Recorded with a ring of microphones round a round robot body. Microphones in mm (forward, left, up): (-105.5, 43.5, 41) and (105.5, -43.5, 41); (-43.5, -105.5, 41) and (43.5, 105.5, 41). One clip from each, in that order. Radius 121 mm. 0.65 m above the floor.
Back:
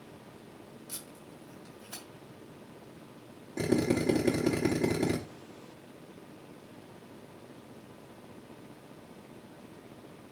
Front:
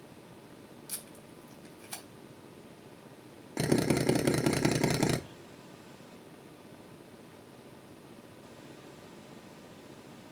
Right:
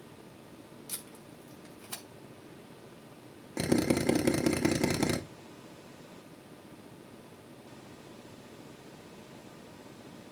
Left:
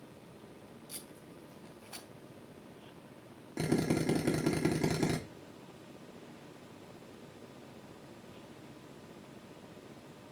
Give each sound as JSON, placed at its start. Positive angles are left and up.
{"t": 0.9, "sound": "tape being pulled", "azimuth_deg": -75, "distance_m": 3.0}
{"t": 3.6, "sound": "a drill", "azimuth_deg": -50, "distance_m": 1.1}